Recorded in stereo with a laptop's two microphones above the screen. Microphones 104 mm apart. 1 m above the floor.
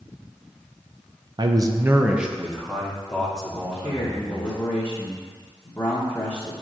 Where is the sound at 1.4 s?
45° right (ahead or behind), 0.5 m; by 4.5 s 5° left (ahead or behind), 4 m.